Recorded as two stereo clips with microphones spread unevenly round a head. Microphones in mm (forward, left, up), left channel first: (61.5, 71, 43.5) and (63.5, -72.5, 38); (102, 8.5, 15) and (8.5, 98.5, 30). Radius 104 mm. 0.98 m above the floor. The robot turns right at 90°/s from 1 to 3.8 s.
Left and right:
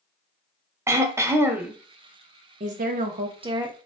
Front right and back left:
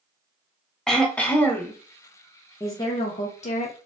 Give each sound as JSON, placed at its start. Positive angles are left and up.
{"t": 0.9, "sound": "throat clearing", "azimuth_deg": -95, "distance_m": 0.6}
{"t": 2.6, "sound": "a woman speaking", "azimuth_deg": -115, "distance_m": 0.6}